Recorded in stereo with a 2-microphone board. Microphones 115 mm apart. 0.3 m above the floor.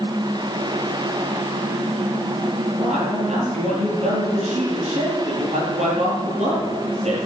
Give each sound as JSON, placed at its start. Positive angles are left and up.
{"t": 2.8, "sound": "a man speaking", "side_deg": -80, "distance_m": 8.0}